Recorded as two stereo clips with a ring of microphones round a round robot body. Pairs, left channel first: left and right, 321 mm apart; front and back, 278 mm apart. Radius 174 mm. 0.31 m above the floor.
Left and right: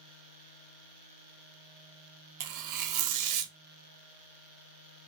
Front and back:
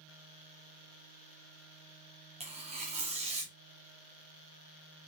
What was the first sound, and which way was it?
Tearing paper, 110° right.